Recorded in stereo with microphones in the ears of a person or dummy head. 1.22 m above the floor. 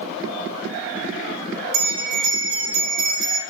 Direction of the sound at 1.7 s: 60° right (ahead or behind).